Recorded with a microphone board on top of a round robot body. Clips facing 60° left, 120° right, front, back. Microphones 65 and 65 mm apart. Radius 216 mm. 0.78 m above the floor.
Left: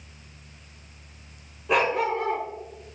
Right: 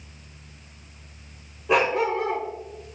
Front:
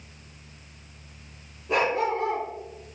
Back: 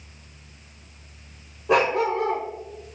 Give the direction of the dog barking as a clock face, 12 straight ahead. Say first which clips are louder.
Right 2 dB, back 4 dB; 7 o'clock.